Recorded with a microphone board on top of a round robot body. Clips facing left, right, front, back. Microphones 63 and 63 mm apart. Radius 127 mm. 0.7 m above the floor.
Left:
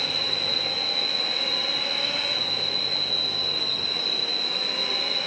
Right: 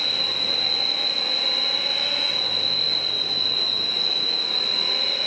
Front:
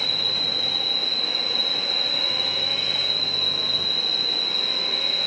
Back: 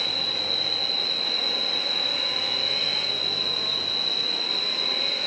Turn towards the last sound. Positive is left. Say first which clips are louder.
# even, front 1 dB
turn(degrees=165)